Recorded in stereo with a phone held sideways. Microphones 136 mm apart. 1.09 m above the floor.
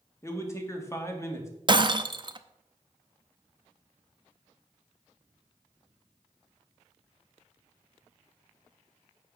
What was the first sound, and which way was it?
A man speaking, 20° left (ahead or behind).